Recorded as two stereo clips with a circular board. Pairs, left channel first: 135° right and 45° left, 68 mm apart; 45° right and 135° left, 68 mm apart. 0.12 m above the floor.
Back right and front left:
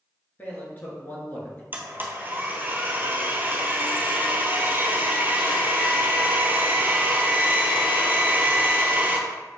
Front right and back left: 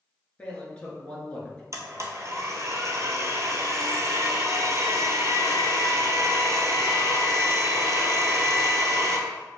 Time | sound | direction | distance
0.4 | a man speaking | 100° right | 1.5 m
1.7 | a blender | 100° left | 0.8 m